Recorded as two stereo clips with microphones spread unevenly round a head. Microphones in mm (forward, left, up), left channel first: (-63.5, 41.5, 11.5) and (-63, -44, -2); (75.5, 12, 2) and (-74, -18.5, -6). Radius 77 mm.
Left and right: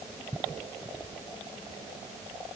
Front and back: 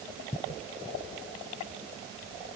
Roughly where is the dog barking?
No dog barking in this recording.